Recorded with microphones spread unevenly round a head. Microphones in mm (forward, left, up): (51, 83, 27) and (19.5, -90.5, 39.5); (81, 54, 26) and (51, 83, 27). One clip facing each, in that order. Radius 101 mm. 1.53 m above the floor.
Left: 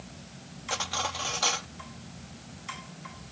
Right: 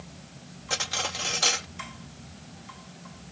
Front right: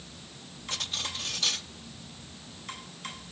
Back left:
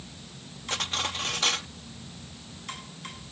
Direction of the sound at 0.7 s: 165° right.